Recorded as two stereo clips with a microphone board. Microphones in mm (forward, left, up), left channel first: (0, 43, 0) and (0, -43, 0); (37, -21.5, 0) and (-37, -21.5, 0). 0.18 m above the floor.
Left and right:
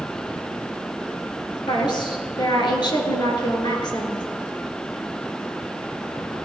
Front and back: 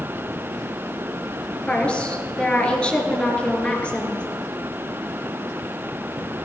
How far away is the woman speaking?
About 2.5 m.